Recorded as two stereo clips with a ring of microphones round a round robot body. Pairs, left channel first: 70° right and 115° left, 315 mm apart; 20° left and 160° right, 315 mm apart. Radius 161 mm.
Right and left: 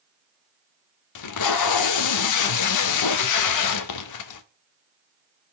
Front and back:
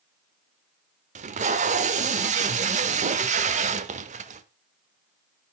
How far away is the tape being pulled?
About 0.9 m.